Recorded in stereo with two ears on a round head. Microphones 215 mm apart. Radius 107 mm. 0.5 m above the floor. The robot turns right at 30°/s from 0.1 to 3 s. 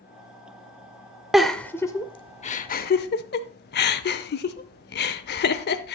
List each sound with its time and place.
1.3 s a giggle: centre (ahead or behind), 0.6 m; by 6.0 s 45° left (ahead or behind), 0.6 m